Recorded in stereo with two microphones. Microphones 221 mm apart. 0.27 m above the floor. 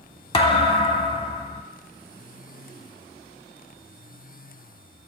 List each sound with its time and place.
0.3 s a thud: 25° left (ahead or behind), 0.7 m